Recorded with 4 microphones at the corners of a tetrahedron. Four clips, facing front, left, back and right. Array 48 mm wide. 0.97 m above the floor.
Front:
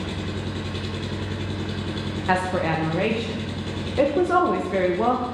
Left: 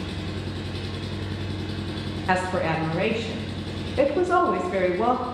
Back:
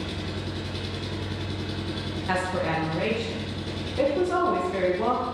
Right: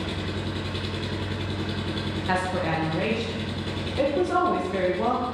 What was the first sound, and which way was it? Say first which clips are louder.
An engine running: right 2 dB, front 3 dB; 60° right.